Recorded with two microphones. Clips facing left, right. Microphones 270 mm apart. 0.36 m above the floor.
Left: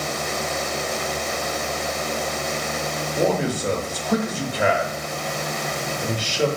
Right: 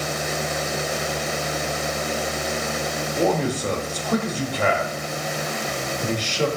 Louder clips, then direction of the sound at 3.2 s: Even; 10° left (ahead or behind).